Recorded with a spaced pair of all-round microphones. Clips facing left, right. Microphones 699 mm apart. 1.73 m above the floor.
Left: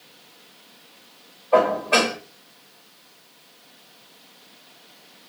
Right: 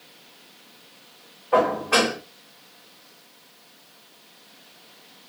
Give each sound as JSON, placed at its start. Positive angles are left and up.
{"t": 1.5, "sound": "dishes clattering", "side_deg": -45, "distance_m": 4.0}